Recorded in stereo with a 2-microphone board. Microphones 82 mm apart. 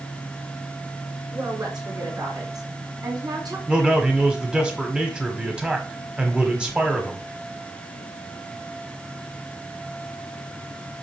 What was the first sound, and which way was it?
A woman speaking, 55° right (ahead or behind).